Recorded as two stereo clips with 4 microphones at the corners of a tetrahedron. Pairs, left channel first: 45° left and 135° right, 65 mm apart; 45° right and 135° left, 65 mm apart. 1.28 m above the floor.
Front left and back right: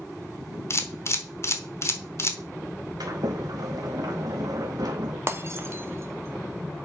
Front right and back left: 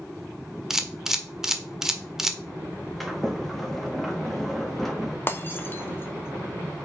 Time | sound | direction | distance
0.7 | a camera shutter | 55° left | 1.1 m
3.0 | a sliding door | 135° right | 1.5 m
5.3 | breaking glass | 95° right | 1.0 m